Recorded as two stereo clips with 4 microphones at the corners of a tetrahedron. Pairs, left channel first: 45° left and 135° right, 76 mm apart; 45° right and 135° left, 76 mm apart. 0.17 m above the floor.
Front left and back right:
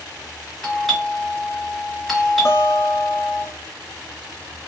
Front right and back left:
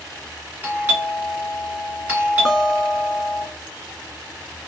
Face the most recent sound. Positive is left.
turn(degrees=45)